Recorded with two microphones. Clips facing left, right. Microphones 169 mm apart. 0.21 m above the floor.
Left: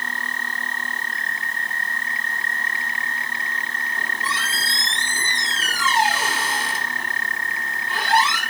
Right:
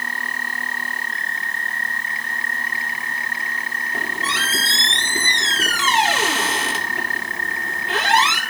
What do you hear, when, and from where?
3.9 s a squeak: 80° right, 2.5 m